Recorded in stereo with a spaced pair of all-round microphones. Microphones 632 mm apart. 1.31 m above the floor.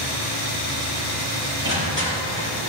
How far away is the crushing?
About 5 m.